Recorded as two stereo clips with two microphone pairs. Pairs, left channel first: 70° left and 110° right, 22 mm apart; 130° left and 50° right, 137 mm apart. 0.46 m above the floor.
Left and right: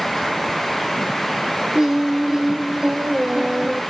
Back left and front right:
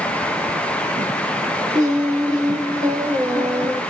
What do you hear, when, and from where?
1.7 s singing: 85° right, 1.6 m